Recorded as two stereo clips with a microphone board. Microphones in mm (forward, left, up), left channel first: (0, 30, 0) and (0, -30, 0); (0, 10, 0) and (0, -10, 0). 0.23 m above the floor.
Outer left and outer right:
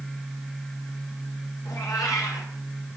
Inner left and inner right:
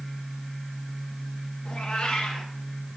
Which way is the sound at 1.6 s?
80° left.